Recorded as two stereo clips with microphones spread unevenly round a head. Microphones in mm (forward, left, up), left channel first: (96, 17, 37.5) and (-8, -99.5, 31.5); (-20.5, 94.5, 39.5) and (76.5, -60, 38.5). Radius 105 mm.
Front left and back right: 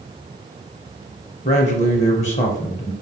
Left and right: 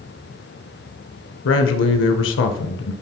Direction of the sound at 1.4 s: 105° left.